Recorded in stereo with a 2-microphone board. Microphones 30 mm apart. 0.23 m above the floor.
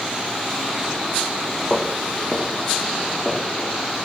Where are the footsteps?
5° left (ahead or behind), 3.5 m; by 3.7 s 10° left (ahead or behind), 5 m.